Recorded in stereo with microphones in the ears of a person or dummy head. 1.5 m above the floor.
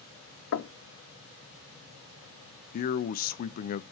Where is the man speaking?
50° left (ahead or behind), 0.6 m.